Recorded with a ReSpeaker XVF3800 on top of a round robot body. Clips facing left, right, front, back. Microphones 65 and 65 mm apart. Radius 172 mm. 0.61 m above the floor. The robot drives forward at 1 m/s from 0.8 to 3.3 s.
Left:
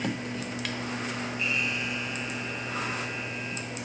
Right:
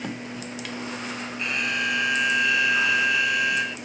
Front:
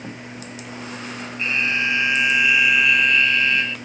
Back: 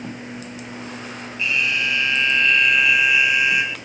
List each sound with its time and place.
1.4 s an alarm: 55° right; by 3.8 s 105° right